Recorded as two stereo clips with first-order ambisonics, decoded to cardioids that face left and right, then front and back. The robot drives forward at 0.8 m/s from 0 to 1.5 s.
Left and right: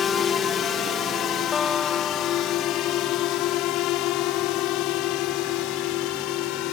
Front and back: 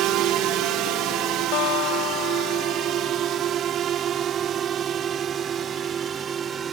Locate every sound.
0.0 s a drone: 150° left; by 6.7 s 115° left
1.5 s a guitar: 15° left